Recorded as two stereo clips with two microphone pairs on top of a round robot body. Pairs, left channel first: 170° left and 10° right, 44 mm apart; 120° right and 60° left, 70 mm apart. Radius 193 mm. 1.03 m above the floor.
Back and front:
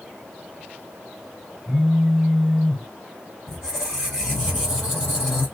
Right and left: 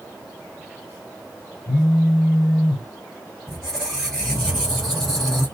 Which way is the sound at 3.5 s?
150° left.